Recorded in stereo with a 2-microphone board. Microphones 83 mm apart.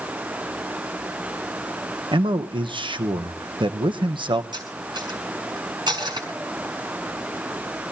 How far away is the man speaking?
About 1.1 m.